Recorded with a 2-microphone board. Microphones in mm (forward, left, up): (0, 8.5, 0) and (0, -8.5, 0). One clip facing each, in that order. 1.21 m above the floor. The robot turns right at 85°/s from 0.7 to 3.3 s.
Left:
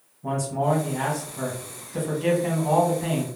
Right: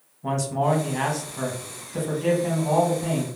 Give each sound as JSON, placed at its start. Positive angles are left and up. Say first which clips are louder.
{"t": 0.2, "sound": "a man speaking", "louder": "right 1 dB", "azimuth_deg": -110, "distance_m": 0.8}